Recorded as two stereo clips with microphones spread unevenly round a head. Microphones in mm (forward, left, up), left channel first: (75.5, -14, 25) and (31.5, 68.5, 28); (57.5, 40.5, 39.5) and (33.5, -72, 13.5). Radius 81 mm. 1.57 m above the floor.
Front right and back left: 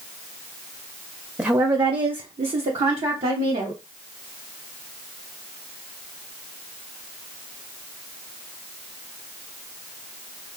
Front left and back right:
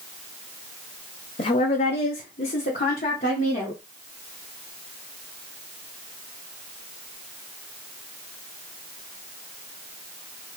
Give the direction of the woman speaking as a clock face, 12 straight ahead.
11 o'clock.